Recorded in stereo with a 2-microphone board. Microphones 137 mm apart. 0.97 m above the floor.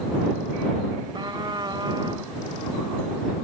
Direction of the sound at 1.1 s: 35° right (ahead or behind).